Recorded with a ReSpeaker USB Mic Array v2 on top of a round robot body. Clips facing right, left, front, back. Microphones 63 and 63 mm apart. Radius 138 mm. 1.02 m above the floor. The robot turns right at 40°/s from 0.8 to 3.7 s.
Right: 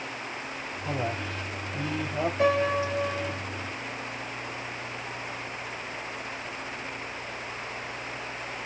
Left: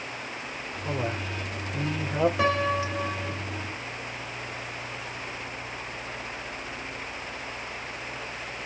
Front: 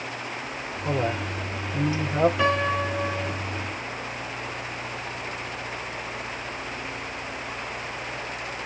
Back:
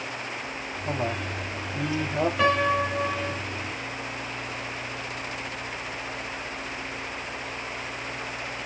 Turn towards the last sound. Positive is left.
turn(degrees=145)